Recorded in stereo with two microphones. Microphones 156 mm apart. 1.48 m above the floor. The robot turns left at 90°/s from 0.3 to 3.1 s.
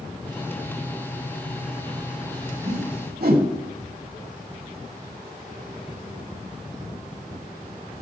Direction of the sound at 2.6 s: 60° right (ahead or behind).